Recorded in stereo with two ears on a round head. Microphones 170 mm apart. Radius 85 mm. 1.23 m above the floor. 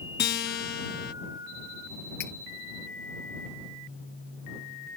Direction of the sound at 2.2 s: 60° left (ahead or behind).